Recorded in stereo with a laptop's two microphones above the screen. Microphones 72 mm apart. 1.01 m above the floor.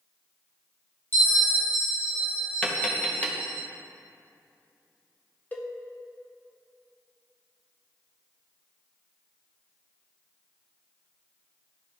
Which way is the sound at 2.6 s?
20° left (ahead or behind).